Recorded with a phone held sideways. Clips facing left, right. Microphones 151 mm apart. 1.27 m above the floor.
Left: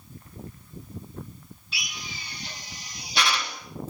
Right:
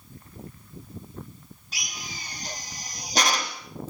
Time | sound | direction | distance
1.7 | a drill | 40° right (ahead or behind) | 2 m